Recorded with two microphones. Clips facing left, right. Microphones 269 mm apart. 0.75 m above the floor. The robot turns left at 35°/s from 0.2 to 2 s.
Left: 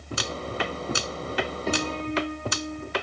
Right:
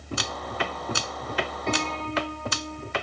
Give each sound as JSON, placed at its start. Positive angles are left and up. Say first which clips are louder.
{"t": 1.7, "sound": "a piano", "louder": "left 1 dB", "side_deg": 5}